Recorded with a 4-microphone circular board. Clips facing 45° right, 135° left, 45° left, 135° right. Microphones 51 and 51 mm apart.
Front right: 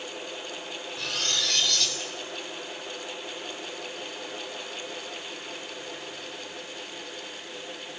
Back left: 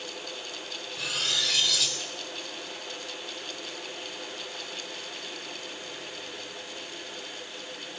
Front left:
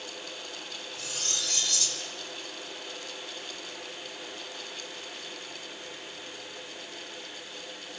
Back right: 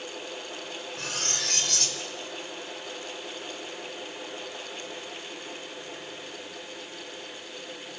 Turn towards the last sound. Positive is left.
turn(degrees=-140)